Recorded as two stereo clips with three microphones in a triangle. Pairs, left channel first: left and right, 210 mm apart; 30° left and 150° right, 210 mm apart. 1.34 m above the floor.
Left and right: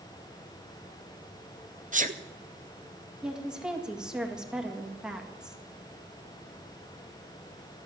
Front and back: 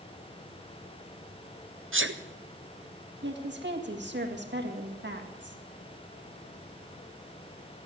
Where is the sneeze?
140° right, 0.6 m.